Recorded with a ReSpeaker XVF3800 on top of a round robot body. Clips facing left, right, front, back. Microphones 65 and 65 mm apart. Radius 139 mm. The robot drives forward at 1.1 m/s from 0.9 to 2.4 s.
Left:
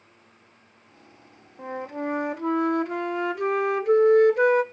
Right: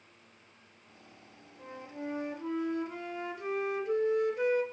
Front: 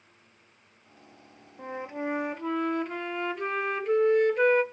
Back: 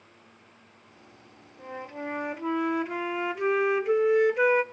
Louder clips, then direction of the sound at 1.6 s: Left 11 dB, front 3 dB; 60° left.